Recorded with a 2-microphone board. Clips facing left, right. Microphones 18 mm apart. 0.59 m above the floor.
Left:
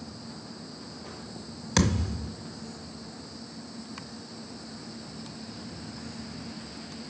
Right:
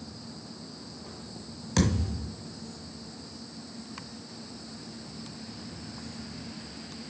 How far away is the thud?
About 1.6 m.